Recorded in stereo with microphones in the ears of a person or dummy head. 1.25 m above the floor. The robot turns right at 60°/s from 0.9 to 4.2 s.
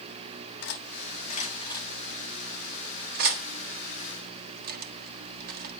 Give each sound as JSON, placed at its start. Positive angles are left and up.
{"t": 0.6, "sound": "cutlery clinking", "side_deg": 75, "distance_m": 1.5}